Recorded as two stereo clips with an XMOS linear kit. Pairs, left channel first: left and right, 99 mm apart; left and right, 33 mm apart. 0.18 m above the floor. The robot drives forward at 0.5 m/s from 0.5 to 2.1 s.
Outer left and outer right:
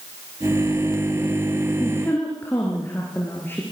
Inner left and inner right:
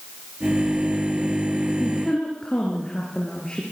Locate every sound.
1.8 s a woman speaking: 20° left (ahead or behind), 3.5 m